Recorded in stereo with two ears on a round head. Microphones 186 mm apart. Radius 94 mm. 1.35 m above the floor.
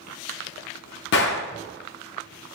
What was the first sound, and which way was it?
A gunshot, 55° left (ahead or behind).